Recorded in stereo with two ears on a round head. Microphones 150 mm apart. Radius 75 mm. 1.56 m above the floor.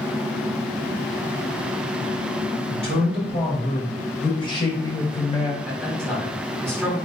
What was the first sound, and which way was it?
A man speaking, 40° left (ahead or behind).